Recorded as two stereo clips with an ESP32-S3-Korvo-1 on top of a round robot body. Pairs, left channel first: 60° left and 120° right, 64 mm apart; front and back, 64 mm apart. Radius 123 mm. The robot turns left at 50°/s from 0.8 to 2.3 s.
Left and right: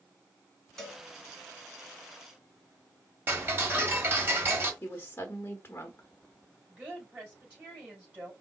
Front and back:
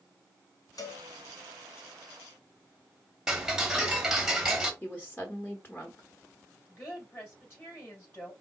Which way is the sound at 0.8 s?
20° right.